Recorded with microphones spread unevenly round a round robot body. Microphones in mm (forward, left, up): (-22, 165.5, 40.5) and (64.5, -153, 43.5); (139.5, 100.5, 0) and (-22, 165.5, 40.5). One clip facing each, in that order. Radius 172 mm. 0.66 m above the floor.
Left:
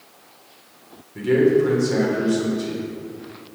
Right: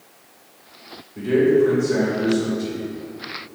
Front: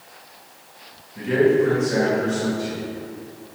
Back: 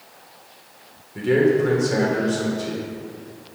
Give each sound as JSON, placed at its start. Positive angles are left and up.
{"t": 1.1, "sound": "a man speaking", "azimuth_deg": 145, "distance_m": 2.5}